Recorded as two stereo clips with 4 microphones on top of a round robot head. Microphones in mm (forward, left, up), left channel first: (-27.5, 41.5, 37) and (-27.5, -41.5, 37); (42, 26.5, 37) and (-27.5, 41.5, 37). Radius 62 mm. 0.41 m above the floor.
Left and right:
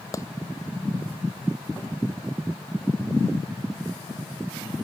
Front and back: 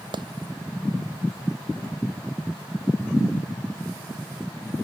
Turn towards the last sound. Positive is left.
turn(degrees=145)